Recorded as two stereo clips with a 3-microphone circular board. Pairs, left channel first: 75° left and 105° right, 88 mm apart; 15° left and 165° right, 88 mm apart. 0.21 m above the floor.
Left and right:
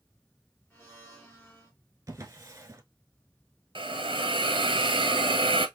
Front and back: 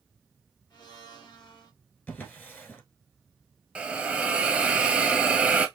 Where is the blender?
5° left, 2.5 m.